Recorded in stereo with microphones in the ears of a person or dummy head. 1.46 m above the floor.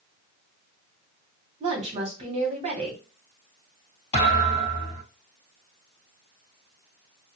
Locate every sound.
1.6 s a woman speaking: 30° right (ahead or behind), 1.1 m
4.1 s a thud: 20° left (ahead or behind), 1.8 m